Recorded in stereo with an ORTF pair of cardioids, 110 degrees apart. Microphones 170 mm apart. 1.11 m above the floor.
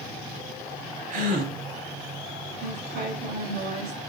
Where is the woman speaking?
65° right, 5 m.